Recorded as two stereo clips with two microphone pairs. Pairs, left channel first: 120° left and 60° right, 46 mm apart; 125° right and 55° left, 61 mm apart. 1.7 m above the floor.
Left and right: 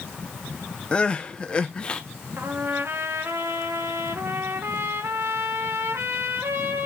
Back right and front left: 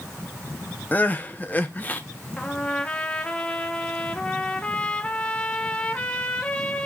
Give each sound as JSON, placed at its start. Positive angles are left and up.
{"t": 0.9, "sound": "crying", "azimuth_deg": 180, "distance_m": 0.8}
{"t": 2.4, "sound": "a trumpet", "azimuth_deg": -55, "distance_m": 1.1}